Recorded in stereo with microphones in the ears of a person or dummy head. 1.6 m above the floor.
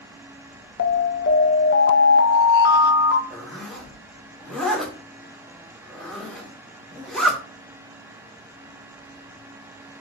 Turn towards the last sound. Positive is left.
turn(degrees=0)  # may be behind; listen again after turning